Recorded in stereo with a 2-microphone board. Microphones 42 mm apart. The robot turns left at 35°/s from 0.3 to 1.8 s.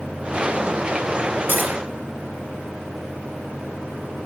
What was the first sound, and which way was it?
Cutlery clinking, 40° right (ahead or behind).